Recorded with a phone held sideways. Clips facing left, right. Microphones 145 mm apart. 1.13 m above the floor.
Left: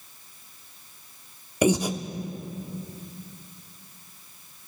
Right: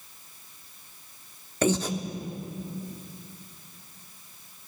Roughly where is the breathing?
Centre.